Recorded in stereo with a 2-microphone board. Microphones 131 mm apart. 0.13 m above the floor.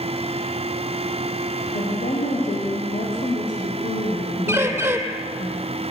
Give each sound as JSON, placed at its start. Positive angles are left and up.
{"t": 1.7, "sound": "a woman speaking", "side_deg": 80, "distance_m": 7.0}
{"t": 4.5, "sound": "a bird", "side_deg": -20, "distance_m": 2.5}